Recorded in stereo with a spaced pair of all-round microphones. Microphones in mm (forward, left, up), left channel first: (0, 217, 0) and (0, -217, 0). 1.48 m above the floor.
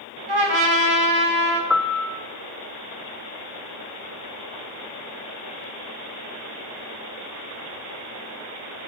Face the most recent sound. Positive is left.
turn(degrees=0)  # may be behind; listen again after turning